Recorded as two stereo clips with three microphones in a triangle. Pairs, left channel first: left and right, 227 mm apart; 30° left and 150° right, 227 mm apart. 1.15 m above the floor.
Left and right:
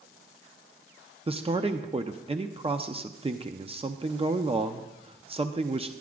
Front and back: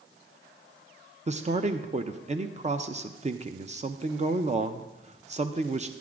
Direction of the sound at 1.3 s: 130° right.